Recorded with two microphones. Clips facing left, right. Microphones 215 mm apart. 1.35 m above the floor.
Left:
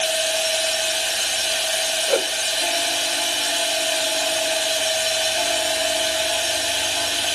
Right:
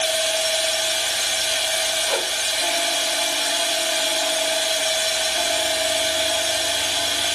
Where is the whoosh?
45° left (ahead or behind), 1.4 m.